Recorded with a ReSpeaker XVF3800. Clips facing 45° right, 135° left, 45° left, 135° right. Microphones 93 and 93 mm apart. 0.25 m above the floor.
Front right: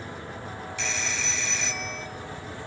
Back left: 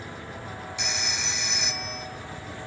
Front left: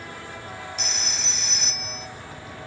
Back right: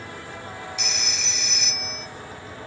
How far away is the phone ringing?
About 0.8 m.